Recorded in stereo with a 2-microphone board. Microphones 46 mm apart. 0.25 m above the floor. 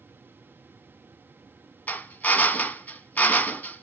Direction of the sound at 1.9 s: 35° left (ahead or behind).